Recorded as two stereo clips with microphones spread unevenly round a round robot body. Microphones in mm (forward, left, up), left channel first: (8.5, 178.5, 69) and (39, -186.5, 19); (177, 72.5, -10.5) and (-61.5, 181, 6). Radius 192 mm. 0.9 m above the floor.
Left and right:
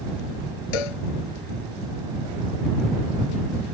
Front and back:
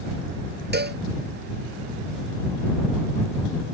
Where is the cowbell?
105° left.